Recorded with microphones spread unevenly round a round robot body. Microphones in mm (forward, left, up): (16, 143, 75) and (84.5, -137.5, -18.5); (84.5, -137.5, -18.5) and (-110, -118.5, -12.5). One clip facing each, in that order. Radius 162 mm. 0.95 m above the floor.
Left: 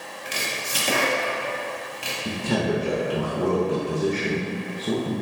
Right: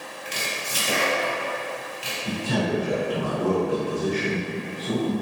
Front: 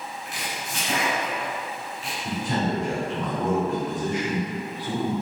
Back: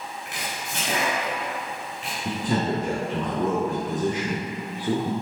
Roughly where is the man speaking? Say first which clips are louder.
Left 1 dB, back 1 dB; behind left.